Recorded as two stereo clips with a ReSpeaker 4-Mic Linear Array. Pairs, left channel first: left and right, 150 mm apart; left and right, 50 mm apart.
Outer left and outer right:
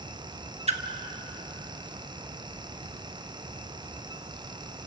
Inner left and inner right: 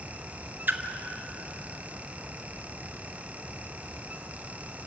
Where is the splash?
45° right (ahead or behind), 1.4 m.